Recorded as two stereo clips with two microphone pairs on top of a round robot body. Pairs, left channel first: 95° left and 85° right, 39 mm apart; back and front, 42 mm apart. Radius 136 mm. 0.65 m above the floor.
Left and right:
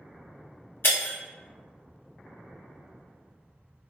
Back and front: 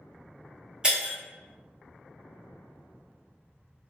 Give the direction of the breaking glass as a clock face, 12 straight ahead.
10 o'clock.